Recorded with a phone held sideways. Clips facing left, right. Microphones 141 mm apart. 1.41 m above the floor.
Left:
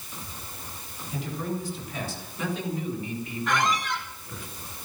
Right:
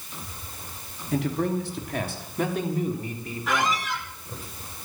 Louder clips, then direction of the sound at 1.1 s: Right 7 dB; 85° right.